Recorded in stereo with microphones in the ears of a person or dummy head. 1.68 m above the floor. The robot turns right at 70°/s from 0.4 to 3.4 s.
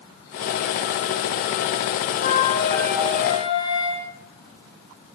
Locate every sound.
2.2 s a flute: 125° left, 2.0 m; by 4.1 s 150° right, 2.0 m